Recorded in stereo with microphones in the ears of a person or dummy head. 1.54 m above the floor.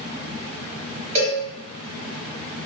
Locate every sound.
1.1 s a cowbell: 30° right (ahead or behind), 1.7 m